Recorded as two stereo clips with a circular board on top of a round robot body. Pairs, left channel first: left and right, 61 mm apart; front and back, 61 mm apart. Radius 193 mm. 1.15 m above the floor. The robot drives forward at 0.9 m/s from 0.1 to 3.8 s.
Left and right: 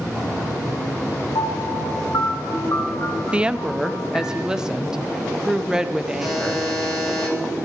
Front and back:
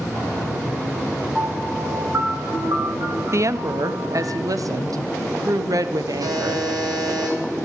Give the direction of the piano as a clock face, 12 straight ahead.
9 o'clock.